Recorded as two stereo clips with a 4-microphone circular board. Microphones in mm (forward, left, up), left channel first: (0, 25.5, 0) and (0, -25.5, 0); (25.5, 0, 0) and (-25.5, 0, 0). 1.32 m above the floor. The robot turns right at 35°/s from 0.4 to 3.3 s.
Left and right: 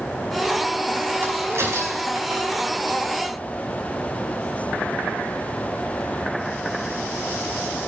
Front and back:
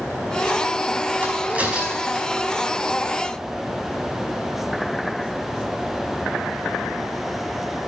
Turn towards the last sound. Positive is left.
turn(degrees=-55)